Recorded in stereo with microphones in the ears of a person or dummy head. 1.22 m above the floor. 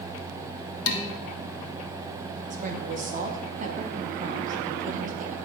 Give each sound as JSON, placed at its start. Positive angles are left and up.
{"t": 0.9, "sound": "dishes clattering", "side_deg": 80, "distance_m": 1.2}
{"t": 2.5, "sound": "a woman speaking", "side_deg": -40, "distance_m": 1.2}